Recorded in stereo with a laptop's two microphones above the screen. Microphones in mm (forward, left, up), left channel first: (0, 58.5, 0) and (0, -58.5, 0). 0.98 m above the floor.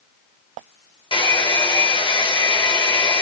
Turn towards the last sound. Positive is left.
turn(degrees=45)  # may be behind; listen again after turning